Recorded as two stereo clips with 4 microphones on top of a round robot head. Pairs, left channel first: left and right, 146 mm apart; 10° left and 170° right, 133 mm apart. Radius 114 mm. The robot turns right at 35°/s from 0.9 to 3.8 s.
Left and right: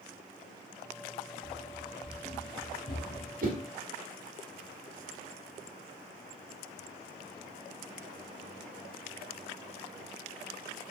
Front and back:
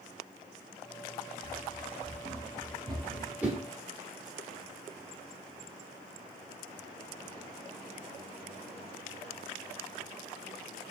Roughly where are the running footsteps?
Behind.